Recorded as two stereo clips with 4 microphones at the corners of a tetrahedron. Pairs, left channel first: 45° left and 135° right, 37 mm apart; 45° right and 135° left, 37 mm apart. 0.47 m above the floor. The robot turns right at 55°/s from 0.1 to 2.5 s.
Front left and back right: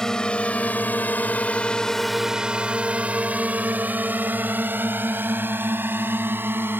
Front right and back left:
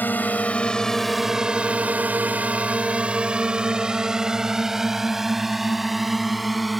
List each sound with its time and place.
0.0 s a drone: 30° right; by 6.8 s 135° right